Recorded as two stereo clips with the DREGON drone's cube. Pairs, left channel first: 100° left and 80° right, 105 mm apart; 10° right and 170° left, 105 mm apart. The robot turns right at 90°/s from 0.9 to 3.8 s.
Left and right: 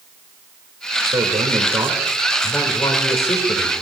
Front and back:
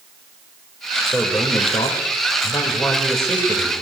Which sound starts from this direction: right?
A man speaking, at 1.1 s.